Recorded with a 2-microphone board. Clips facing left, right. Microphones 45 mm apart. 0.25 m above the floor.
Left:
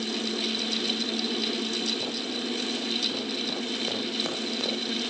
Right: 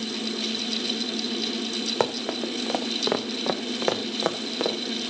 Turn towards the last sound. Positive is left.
turn(degrees=-30)  # may be behind; listen again after turning